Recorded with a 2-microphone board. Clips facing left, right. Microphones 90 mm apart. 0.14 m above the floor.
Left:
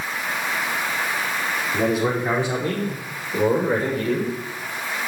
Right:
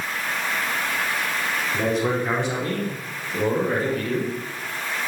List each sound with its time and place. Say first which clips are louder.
1.7 s a man speaking: left 2 dB; 10° left (ahead or behind), 7 m; by 4.4 s 20° left (ahead or behind), 5.5 m